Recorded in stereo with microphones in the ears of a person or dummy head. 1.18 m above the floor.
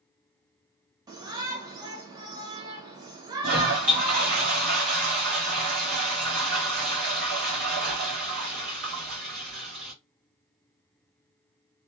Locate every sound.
1.1 s a shout: 25° right (ahead or behind), 0.9 m
3.4 s a toilet flushing: 55° right (ahead or behind), 0.9 m